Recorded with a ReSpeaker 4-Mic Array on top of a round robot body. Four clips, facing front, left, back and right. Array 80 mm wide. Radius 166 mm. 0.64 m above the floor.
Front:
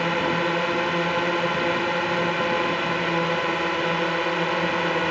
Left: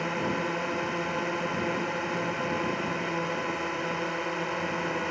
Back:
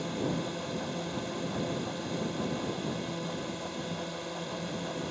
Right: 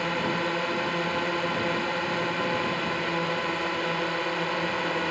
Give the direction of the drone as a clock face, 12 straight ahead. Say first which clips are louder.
Right 2 dB, front 10 dB; 12 o'clock.